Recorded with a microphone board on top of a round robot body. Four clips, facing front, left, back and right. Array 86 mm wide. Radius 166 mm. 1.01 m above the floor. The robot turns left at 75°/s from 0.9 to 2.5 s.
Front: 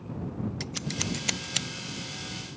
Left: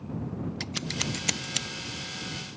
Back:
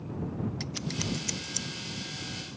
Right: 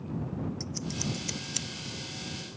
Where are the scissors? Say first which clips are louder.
Left 1 dB, even; 80° left; by 1.7 s 20° left.